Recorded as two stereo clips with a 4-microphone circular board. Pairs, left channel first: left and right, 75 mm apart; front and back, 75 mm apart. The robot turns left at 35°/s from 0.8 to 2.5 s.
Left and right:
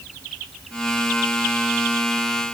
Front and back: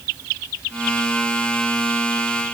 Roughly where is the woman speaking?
I don't hear a woman speaking.